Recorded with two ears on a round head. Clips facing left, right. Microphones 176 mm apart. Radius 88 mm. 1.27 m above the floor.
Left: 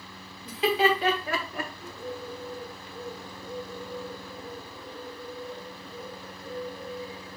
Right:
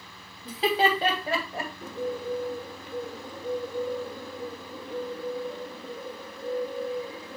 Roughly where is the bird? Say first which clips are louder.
Right 6 dB; right.